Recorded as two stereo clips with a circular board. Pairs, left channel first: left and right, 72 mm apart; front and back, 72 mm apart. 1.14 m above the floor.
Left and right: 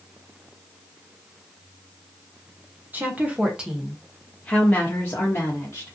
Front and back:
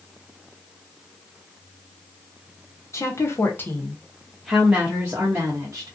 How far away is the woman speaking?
About 0.9 m.